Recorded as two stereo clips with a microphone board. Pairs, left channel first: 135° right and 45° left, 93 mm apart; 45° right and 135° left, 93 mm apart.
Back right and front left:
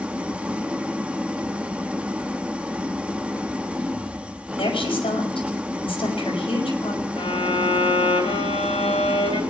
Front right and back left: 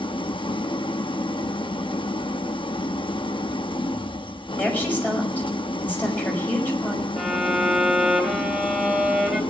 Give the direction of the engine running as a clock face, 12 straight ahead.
1 o'clock.